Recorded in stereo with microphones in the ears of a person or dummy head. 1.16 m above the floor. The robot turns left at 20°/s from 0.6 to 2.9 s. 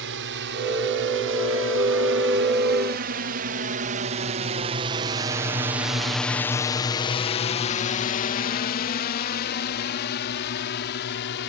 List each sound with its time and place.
0.0 s a drone: 65° right (ahead or behind); by 11.5 s 55° left (ahead or behind)